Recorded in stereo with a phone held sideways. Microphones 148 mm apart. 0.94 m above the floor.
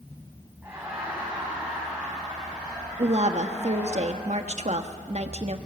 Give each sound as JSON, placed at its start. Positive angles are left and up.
{"t": 0.6, "sound": "laughter", "side_deg": -15, "distance_m": 7.5}
{"t": 3.0, "sound": "a woman speaking", "side_deg": -50, "distance_m": 1.4}